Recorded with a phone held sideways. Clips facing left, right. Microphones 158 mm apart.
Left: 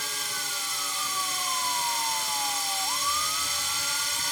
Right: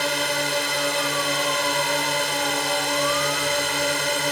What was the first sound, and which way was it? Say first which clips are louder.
A drone: right 16 dB; 75° right (ahead or behind).